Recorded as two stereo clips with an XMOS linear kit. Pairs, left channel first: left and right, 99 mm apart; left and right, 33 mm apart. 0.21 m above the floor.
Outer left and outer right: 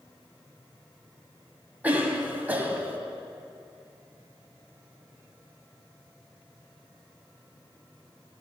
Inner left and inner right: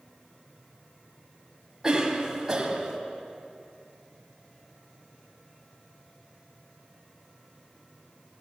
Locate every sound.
1.8 s a cough: 15° right (ahead or behind), 1.3 m